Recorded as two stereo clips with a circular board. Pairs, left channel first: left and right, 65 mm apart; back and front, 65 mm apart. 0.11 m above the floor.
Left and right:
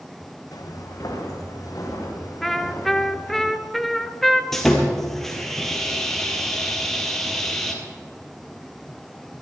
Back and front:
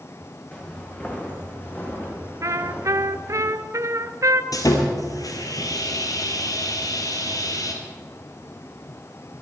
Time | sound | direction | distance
0.5 | footsteps | 105° left | 3.5 m
2.4 | a trumpet | 5° left | 0.7 m
4.5 | sawing | 175° left | 2 m